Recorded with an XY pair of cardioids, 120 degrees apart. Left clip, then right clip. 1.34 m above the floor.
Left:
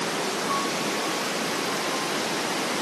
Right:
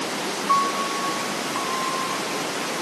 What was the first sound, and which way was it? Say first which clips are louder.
A piano: right 10 dB; 55° right.